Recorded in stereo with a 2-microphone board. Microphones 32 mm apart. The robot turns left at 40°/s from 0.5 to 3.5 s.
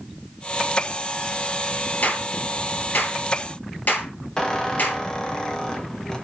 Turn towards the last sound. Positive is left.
turn(degrees=20)  # may be behind; listen again after turning